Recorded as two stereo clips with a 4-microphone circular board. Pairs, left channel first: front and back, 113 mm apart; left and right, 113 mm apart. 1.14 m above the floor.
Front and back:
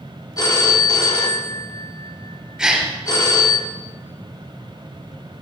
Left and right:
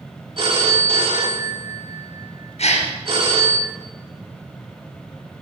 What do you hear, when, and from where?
0.4 s a phone ringing: 55° right, 1.3 m
2.6 s a gasp: 95° left, 3 m